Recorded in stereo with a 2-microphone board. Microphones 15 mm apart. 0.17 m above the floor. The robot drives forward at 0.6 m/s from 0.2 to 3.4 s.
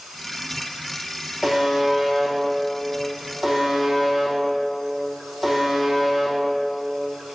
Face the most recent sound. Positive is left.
turn(degrees=-15)  # may be behind; listen again after turning